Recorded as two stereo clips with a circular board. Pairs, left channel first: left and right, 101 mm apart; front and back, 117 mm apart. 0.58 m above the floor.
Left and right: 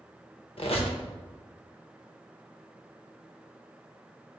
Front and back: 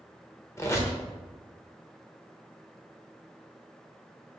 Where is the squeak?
65° left, 0.5 m.